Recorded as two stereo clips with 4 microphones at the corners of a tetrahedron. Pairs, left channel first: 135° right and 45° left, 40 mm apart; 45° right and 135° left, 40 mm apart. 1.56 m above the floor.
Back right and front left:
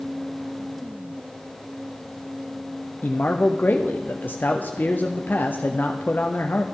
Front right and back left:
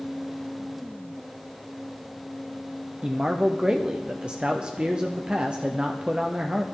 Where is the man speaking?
160° right, 0.7 m.